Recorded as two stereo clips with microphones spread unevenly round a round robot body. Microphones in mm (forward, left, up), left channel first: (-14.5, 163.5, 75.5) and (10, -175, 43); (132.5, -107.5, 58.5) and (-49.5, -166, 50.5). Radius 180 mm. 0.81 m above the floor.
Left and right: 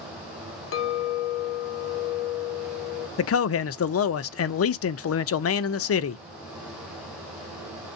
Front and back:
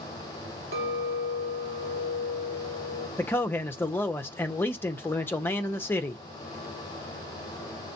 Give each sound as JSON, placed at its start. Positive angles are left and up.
{"t": 0.7, "sound": "a clink", "azimuth_deg": 150, "distance_m": 0.9}
{"t": 3.2, "sound": "a man speaking", "azimuth_deg": 95, "distance_m": 0.6}